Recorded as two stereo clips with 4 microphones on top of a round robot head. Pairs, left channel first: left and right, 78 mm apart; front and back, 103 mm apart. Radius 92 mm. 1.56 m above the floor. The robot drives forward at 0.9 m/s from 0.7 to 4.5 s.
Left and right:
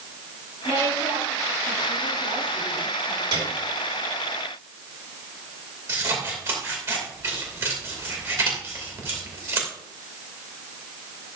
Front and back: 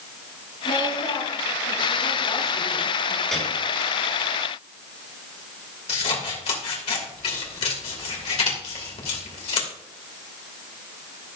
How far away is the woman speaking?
About 7 m.